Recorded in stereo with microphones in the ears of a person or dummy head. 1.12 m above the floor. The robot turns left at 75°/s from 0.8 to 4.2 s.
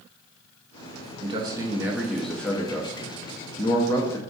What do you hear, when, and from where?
1.2 s a man speaking: 25° right (ahead or behind), 0.6 m; by 4.2 s 10° left (ahead or behind), 0.6 m